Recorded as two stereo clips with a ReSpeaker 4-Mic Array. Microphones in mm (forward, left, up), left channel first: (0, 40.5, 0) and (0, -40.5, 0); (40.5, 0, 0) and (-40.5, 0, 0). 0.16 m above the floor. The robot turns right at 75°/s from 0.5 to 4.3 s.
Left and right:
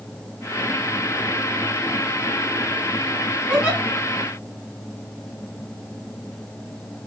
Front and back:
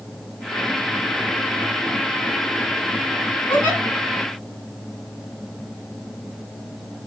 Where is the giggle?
40° right, 1.7 m; by 3.8 s 15° right, 1.7 m.